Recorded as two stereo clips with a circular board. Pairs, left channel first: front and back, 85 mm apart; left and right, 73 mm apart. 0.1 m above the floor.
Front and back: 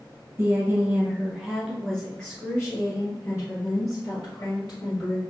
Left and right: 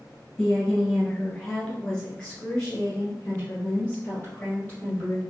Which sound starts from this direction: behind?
A woman speaking, at 0.4 s.